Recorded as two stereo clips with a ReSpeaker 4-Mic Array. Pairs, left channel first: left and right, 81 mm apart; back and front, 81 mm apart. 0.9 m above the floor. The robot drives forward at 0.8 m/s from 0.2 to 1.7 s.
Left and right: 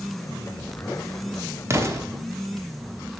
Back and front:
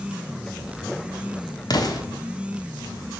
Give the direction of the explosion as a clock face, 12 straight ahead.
5 o'clock.